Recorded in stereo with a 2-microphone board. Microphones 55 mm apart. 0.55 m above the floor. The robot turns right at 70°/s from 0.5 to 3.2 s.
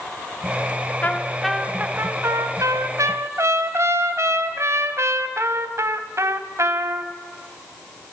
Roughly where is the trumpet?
Behind left.